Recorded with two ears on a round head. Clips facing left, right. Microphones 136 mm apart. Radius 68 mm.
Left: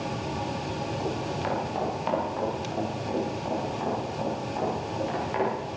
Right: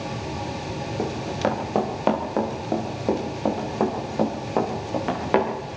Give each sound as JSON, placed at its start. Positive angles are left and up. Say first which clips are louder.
{"t": 1.0, "sound": "running footsteps", "louder": "right 8 dB", "side_deg": -60, "distance_m": 8.5}